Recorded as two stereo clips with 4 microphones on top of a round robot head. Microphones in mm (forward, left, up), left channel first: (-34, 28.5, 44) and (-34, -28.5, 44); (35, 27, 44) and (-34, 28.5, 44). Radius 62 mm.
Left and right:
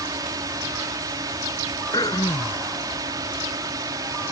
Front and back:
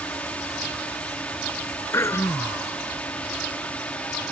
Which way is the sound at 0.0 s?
75° right.